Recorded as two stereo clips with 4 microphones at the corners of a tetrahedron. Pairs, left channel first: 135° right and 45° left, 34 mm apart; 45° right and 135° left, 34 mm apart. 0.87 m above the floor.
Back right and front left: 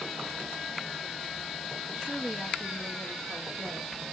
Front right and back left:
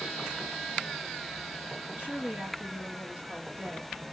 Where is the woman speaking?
70° left, 2 m.